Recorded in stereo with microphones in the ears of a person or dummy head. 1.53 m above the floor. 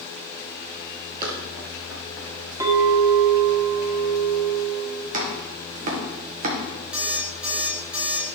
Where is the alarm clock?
5° right (ahead or behind), 1.9 m.